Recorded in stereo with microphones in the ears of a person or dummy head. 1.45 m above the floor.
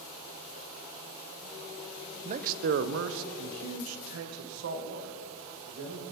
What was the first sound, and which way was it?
A man speaking, 35° right (ahead or behind).